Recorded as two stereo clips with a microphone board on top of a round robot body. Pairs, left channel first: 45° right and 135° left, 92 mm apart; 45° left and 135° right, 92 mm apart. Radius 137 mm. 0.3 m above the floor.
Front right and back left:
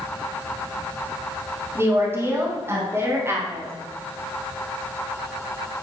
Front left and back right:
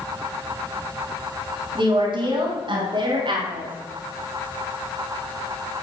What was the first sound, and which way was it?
A woman speaking, 160° right.